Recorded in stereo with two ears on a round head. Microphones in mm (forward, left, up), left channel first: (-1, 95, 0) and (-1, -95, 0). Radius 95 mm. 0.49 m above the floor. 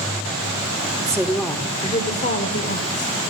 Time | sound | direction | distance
1.0 | a woman speaking | 20° right (ahead or behind) | 1.0 m